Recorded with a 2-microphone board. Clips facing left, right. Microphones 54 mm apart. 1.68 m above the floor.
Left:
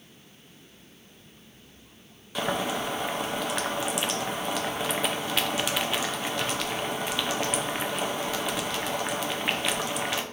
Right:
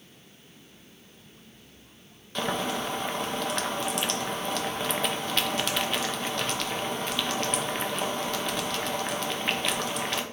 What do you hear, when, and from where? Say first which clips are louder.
2.4 s boiling: left 1 dB; 5° left (ahead or behind), 0.5 m